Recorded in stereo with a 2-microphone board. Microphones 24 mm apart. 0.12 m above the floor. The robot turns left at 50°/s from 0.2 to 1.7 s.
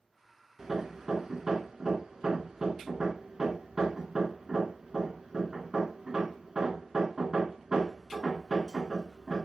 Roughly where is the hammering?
Centre.